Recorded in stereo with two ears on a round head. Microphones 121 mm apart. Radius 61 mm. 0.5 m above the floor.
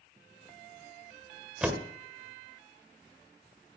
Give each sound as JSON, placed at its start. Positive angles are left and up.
{"t": 1.6, "sound": "a door slam", "side_deg": -10, "distance_m": 1.6}